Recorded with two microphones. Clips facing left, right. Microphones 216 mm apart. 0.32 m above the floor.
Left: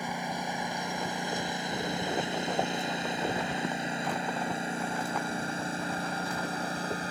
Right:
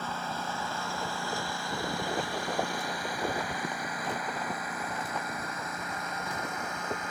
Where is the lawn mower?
15° left (ahead or behind); by 7.1 s 35° left (ahead or behind).